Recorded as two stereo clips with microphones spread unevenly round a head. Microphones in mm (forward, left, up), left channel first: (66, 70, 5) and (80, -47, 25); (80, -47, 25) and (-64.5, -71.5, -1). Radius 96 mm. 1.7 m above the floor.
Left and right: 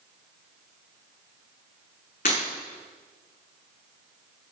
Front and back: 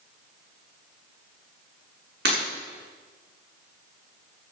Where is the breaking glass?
145° left, 7.5 m.